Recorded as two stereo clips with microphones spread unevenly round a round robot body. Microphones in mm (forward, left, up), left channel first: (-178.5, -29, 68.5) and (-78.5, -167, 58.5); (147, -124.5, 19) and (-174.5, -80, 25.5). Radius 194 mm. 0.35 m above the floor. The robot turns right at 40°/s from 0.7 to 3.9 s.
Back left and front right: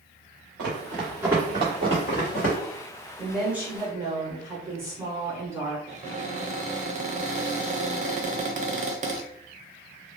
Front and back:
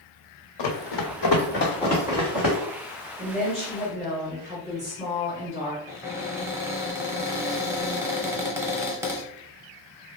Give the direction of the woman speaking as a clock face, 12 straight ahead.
5 o'clock.